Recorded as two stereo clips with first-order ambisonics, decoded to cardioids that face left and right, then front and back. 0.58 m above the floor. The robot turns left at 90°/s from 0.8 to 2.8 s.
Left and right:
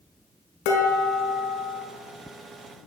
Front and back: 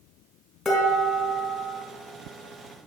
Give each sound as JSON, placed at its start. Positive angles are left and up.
{"t": 0.7, "sound": "dishes clattering", "azimuth_deg": 80, "distance_m": 4.5}